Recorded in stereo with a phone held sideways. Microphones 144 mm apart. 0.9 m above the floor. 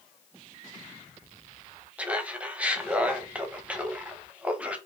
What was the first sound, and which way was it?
Laughter, 10° right (ahead or behind).